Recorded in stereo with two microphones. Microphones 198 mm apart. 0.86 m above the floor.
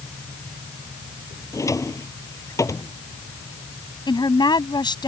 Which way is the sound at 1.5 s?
15° left (ahead or behind).